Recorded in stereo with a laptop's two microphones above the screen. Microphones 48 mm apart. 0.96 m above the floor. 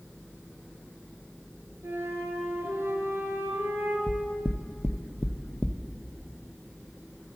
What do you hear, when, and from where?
1.8 s a flute: 65° right (ahead or behind), 3 m
4.1 s knocking: 35° left (ahead or behind), 0.5 m